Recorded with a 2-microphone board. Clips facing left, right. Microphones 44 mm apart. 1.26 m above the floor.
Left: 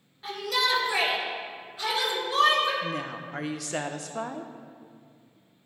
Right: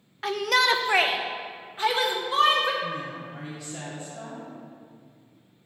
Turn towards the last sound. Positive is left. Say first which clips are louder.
# even
turn(degrees=70)  # may be behind; listen again after turning